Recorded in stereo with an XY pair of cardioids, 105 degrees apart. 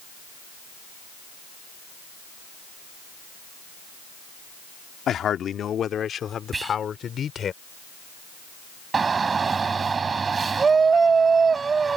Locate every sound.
5.1 s a man speaking: 60° left; by 7.5 s 50° left
6.5 s whispering: 25° right
8.9 s a shout: 35° right